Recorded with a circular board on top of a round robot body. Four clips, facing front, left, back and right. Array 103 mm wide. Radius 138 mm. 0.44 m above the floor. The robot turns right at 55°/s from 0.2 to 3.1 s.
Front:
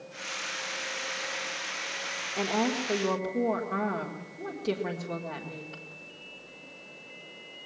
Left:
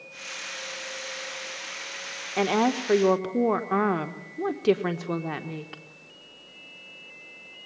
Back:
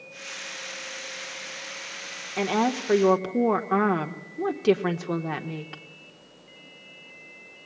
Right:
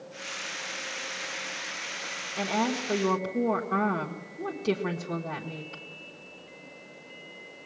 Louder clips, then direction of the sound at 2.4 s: Left 5 dB, back 4 dB; 105° left.